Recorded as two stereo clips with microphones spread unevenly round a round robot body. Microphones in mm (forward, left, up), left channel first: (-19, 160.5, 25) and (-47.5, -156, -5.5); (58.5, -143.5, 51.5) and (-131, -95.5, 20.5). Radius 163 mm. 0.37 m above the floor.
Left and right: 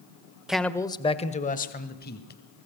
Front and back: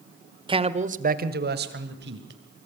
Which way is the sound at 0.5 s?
175° right.